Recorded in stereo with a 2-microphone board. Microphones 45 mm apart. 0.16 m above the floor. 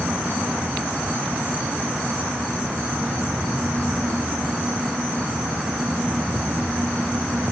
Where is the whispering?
No whispering in this recording.